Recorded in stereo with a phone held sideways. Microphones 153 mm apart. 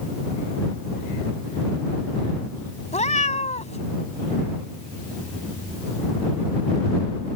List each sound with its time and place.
2.9 s a cat meowing: 50° left (ahead or behind)